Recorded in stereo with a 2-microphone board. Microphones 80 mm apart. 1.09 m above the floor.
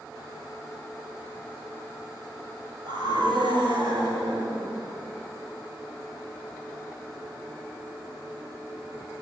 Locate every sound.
2.9 s a scream: 65° right (ahead or behind), 6.5 m; by 4.7 s 80° right, 8 m